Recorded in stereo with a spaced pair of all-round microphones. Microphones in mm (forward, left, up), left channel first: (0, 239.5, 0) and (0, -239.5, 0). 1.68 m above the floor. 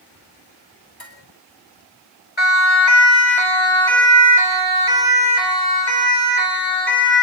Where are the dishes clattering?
50° left (ahead or behind), 9.5 m.